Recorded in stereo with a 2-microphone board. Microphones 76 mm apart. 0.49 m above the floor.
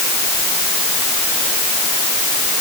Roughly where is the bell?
No bell in this recording.